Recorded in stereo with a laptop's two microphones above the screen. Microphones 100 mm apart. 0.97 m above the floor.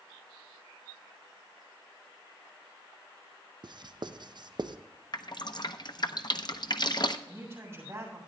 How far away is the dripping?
About 0.6 m.